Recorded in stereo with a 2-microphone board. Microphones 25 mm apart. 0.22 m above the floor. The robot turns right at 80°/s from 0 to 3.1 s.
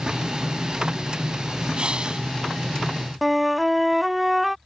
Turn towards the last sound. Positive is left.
turn(degrees=-5)  # may be behind; listen again after turning